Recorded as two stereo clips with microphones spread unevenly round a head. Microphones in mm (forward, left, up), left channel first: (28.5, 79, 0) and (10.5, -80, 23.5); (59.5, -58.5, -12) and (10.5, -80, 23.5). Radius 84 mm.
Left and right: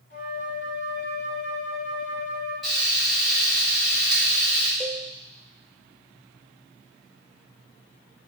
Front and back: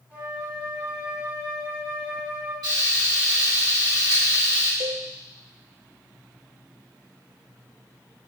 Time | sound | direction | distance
0.1 | a flute | 130° left | 2 m
2.6 | frying | 170° left | 3 m
4.8 | a cowbell | 170° left | 0.5 m